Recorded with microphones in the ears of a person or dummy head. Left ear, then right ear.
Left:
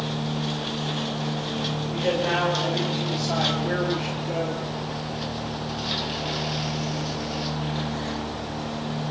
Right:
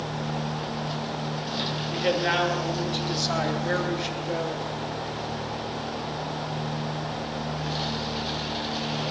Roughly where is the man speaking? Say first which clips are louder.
Even; right.